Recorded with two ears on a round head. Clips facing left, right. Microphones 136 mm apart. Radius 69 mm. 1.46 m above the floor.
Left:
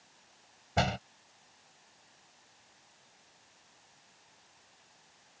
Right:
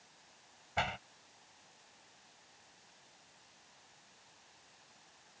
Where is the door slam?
45° left (ahead or behind).